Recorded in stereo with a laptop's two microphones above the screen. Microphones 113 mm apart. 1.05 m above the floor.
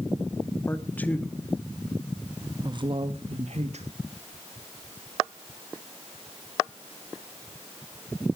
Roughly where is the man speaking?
Centre.